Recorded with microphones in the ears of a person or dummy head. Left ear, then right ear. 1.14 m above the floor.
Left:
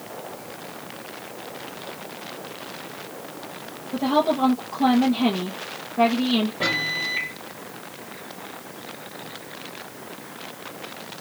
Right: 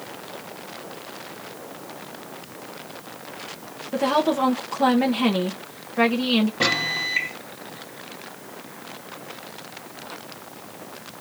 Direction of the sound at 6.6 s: 70° right (ahead or behind).